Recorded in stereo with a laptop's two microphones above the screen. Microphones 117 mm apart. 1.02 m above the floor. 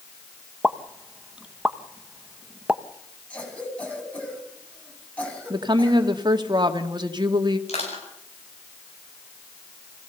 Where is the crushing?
75° left (ahead or behind), 8.5 m.